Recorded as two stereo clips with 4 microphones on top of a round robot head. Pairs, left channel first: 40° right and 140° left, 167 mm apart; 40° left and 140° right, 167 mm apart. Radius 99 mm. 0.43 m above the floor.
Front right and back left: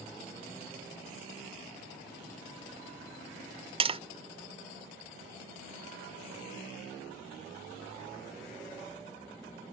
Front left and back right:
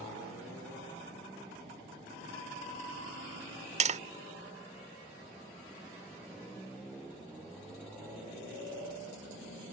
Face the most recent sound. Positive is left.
turn(degrees=-170)